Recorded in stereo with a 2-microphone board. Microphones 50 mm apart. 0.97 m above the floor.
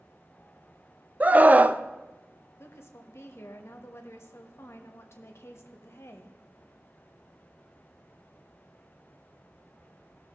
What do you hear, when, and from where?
1.2 s a scream: 35° right (ahead or behind), 0.5 m
2.6 s a woman speaking: 60° left (ahead or behind), 1.2 m